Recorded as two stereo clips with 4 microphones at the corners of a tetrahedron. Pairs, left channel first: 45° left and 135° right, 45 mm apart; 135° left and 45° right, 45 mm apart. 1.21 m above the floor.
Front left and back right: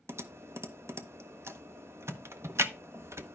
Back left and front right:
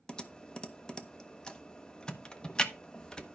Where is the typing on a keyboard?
155° right, 0.8 m.